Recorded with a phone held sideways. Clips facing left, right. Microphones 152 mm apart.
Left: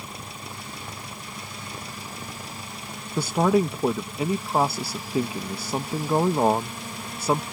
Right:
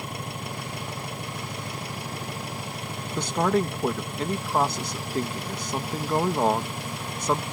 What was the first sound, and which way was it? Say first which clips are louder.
An engine running: right 5 dB; 65° right (ahead or behind).